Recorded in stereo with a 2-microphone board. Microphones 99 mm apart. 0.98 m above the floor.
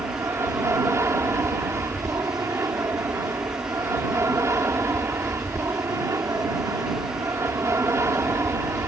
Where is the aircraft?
30° right (ahead or behind).